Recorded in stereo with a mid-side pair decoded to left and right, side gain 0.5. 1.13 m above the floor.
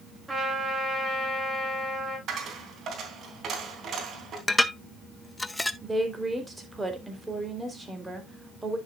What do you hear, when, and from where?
0.3 s a trumpet: 20° right, 7.5 m
2.3 s a dropped coin: 55° right, 3 m
4.5 s dishes clattering: 15° left, 0.7 m
5.8 s a woman speaking: 15° right, 3.5 m